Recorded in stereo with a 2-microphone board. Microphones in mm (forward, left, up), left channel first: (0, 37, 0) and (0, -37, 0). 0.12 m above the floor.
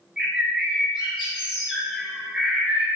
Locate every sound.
0.2 s a bird: 10° right (ahead or behind), 0.9 m